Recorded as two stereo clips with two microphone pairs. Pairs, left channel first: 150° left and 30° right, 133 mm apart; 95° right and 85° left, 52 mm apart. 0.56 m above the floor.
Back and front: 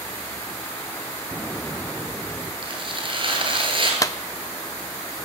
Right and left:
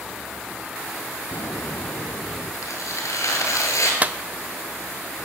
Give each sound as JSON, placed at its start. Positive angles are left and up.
{"t": 1.3, "sound": "an explosion", "azimuth_deg": -120, "distance_m": 1.3}
{"t": 2.6, "sound": "tearing paper", "azimuth_deg": -80, "distance_m": 6.0}
{"t": 4.0, "sound": "a clap", "azimuth_deg": 110, "distance_m": 0.8}